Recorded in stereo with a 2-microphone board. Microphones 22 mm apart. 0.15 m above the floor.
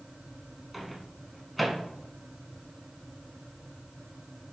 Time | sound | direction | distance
0.7 | a microwave | 5° left (ahead or behind) | 0.9 m